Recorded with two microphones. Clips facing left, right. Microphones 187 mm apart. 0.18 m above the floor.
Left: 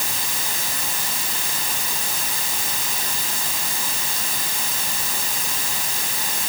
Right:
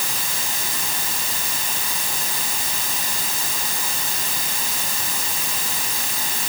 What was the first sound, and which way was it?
Only background noise.